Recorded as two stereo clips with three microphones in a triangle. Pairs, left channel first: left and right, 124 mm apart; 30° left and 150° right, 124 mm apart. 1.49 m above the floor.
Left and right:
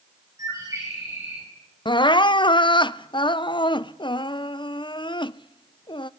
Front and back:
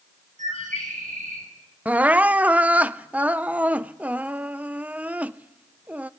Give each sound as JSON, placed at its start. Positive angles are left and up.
{"t": 0.4, "sound": "a bird", "azimuth_deg": -155, "distance_m": 8.0}
{"t": 1.9, "sound": "crying", "azimuth_deg": 135, "distance_m": 0.5}